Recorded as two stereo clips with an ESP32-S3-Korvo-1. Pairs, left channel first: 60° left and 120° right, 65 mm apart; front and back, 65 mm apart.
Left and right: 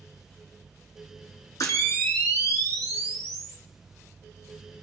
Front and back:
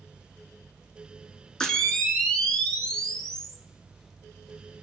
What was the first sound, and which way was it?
A camera shutter, 80° left.